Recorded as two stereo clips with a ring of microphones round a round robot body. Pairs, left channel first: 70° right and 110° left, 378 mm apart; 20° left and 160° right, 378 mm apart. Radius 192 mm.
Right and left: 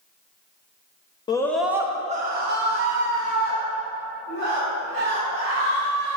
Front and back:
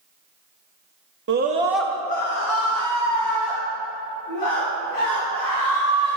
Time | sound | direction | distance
1.3 | a scream | 140° right | 1.0 m